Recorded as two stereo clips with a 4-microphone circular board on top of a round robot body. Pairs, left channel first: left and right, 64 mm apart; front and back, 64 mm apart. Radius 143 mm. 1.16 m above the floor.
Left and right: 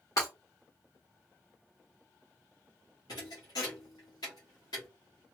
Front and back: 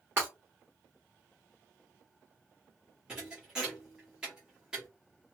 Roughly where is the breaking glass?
Behind left.